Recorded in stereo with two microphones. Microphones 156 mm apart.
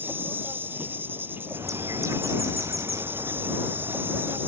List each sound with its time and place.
0.0 s an insect: 10° right (ahead or behind)
1.5 s a bird: 20° right (ahead or behind)